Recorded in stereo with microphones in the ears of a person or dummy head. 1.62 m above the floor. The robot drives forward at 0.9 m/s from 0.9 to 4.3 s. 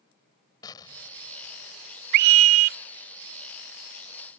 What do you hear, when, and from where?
0.6 s an explosion: 25° left (ahead or behind); by 2.0 s 35° left (ahead or behind)
2.1 s a scream: 65° right (ahead or behind); by 2.8 s 55° right (ahead or behind)